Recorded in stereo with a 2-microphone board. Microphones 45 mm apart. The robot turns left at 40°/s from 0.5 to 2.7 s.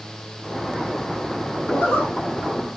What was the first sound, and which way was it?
A zipper, 65° left (ahead or behind).